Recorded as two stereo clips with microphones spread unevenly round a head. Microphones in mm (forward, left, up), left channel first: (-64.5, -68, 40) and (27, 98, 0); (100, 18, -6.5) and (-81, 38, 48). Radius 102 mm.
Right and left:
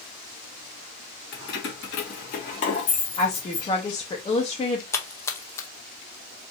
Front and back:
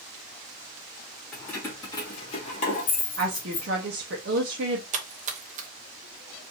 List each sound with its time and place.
1.3 s keys jangling: 100° right, 1.6 m; by 3.7 s 50° right, 1.8 m
3.2 s a woman speaking: straight behind, 0.8 m
4.9 s a splash: straight behind, 0.7 m